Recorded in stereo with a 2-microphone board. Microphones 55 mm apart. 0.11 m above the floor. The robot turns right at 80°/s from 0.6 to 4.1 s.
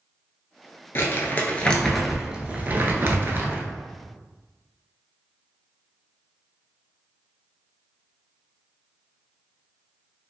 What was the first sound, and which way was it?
Crumpling, 95° left.